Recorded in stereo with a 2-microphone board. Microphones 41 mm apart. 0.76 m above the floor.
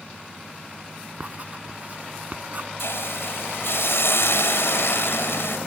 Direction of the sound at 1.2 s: 40° right (ahead or behind).